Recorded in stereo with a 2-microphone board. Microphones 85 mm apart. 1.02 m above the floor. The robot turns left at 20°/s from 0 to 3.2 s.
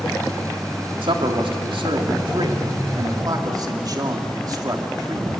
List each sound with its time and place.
1.0 s a man speaking: 90° right, 2.5 m; by 5.3 s 130° right, 2.5 m